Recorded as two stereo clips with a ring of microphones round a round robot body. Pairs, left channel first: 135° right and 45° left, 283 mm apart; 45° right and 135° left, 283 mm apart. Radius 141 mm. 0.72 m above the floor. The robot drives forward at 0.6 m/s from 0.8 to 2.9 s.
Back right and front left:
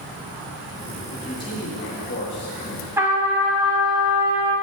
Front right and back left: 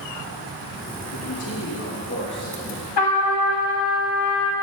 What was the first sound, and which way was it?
A man speaking, 60° right.